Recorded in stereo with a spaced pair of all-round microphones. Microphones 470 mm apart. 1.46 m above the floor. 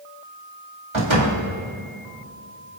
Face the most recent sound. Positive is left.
turn(degrees=-85)